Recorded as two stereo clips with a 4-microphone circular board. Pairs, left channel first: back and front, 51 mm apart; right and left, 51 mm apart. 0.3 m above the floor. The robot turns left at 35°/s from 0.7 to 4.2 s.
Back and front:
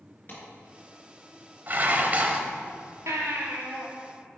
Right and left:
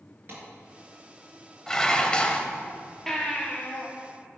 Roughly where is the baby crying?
Ahead.